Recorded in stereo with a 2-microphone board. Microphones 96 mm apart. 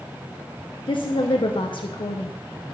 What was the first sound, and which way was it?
A woman speaking, 60° left (ahead or behind).